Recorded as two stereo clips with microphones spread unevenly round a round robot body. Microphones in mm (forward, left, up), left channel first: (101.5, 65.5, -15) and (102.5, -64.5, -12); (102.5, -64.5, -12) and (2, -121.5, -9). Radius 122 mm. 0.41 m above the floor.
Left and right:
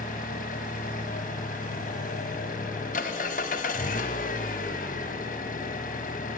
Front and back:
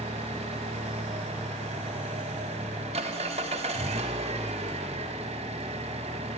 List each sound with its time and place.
0.0 s an engine running: 145° left, 1.0 m